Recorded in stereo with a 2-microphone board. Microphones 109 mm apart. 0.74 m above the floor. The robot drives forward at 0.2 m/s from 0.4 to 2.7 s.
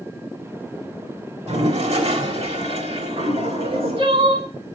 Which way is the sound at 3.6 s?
55° right (ahead or behind).